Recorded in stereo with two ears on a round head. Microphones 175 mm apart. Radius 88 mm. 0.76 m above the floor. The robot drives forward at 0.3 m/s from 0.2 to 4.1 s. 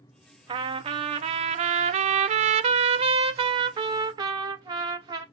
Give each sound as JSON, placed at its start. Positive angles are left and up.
{"t": 0.5, "sound": "a trumpet", "side_deg": -25, "distance_m": 0.7}